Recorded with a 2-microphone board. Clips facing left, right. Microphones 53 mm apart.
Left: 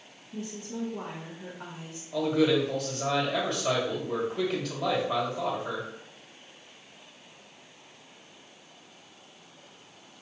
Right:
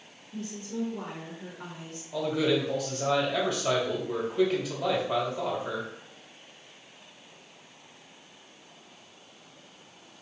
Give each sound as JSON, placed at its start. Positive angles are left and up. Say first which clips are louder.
{"t": 0.3, "sound": "a woman speaking", "louder": "right 1 dB", "side_deg": 10, "distance_m": 0.9}
{"t": 2.1, "sound": "a man speaking", "louder": "left 2 dB", "side_deg": 0, "distance_m": 1.6}